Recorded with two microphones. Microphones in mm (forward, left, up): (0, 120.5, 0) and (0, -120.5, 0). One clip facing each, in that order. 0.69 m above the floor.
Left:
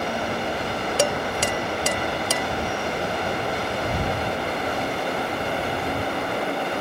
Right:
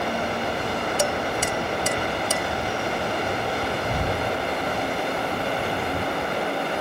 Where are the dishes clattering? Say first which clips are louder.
Left 4 dB; 75° left (ahead or behind).